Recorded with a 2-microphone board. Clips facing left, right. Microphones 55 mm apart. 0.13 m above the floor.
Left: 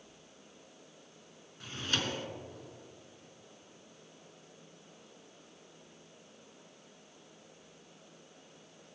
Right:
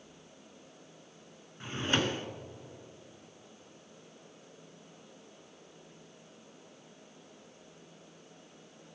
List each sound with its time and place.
1.6 s a drawer: 30° right (ahead or behind), 0.8 m